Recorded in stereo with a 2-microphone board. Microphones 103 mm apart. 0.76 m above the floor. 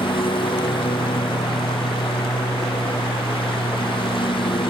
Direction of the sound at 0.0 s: 55° left (ahead or behind).